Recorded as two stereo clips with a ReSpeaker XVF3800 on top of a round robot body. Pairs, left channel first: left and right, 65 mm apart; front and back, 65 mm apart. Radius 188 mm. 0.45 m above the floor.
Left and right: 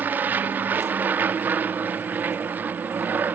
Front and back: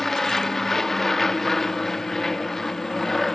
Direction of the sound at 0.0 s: 80° right.